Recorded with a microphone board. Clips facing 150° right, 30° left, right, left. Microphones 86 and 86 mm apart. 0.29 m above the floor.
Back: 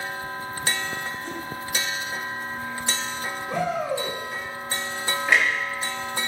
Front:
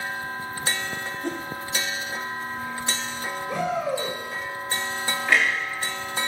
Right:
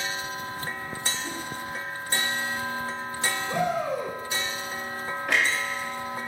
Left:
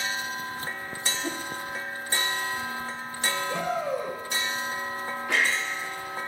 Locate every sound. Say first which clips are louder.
1.2 s a whoosh: front 3 dB, left 2 dB; 65° left, 1.2 m
3.5 s a shout: even, right 4 dB; 95° right, 3 m
5.3 s a clunk: even, right 1 dB; 75° right, 3 m